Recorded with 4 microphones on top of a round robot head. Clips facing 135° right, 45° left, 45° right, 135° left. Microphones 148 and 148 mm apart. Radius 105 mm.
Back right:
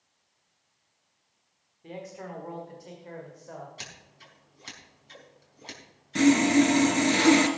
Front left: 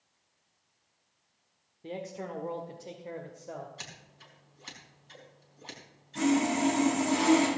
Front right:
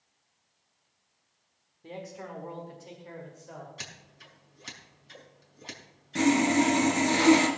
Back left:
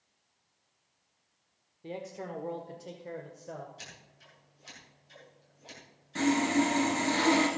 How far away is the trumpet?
I don't hear a trumpet.